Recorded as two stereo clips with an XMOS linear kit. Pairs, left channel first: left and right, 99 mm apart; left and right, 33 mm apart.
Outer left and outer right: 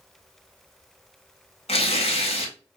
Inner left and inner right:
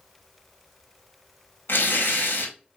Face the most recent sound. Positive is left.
turn(degrees=85)